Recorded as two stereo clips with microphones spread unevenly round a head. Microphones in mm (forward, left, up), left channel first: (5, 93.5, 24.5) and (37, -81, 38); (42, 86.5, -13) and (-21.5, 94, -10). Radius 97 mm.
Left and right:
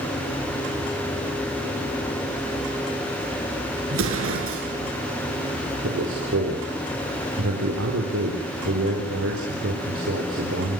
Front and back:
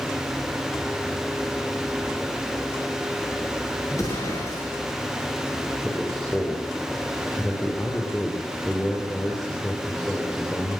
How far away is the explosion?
About 6.5 m.